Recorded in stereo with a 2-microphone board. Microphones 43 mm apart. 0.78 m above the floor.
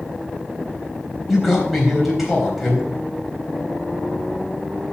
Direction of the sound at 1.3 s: Centre (ahead or behind).